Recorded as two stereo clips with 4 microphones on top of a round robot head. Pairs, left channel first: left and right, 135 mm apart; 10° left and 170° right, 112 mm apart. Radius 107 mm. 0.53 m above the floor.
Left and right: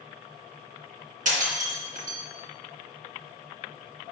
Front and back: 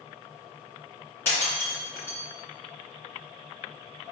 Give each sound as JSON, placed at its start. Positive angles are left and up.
{"t": 1.2, "sound": "breaking glass", "azimuth_deg": -65, "distance_m": 2.5}